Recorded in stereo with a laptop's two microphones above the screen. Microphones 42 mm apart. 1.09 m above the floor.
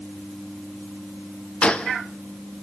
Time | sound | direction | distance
1.6 | a gunshot | 25° left (ahead or behind) | 0.6 m